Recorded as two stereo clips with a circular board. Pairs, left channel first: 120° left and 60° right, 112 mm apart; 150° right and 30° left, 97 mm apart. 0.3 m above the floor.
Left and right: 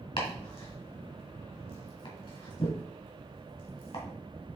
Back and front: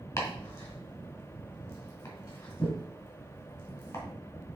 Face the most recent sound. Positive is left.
turn(degrees=150)